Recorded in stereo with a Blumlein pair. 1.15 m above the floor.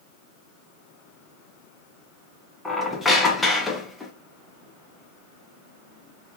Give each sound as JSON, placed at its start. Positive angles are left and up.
{"t": 2.6, "sound": "a squeak", "azimuth_deg": 10, "distance_m": 0.8}